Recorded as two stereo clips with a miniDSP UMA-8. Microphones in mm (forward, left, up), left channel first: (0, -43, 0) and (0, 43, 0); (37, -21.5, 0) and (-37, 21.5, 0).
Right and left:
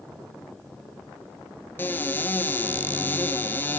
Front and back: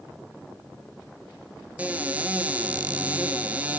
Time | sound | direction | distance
1.8 | a cupboard door | 145° right | 0.5 m